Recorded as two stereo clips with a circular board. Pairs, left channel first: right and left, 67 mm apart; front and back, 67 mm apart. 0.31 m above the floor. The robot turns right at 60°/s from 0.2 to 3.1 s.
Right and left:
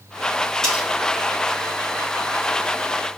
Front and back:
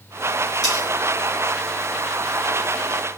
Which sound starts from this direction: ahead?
Cutlery clinking, at 0.6 s.